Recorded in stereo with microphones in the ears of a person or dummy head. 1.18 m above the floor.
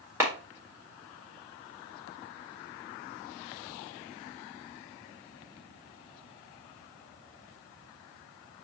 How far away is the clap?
About 1.6 m.